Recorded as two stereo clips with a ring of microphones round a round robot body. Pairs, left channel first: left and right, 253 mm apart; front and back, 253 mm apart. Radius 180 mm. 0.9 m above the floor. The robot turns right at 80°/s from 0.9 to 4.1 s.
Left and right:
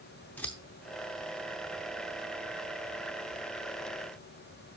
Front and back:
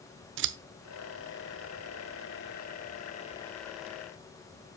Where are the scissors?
170° left, 0.5 m.